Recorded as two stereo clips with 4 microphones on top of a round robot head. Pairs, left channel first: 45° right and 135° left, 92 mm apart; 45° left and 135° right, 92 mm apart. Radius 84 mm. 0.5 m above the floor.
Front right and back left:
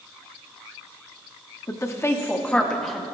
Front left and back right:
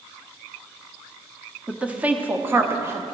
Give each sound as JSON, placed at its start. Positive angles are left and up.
{"t": 1.7, "sound": "a woman speaking", "azimuth_deg": -65, "distance_m": 1.2}